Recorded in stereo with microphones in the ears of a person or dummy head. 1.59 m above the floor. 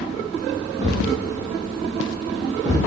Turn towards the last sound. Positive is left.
turn(degrees=-25)  # may be behind; listen again after turning